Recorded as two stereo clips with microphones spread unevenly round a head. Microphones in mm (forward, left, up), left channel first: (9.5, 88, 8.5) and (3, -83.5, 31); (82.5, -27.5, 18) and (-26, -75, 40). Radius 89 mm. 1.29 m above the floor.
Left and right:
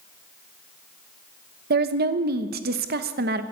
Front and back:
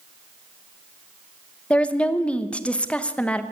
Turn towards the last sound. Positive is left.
turn(degrees=-60)